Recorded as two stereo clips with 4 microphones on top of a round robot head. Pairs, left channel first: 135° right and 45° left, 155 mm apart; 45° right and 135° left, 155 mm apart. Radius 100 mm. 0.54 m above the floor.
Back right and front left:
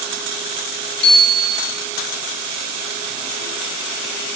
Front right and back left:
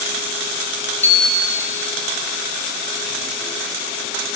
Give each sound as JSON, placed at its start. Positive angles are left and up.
{"t": 1.0, "sound": "a bicycle bell", "azimuth_deg": -125, "distance_m": 5.0}